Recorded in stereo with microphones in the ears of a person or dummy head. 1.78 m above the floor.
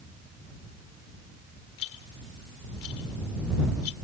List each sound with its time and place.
1.8 s a rattle: 75° left (ahead or behind)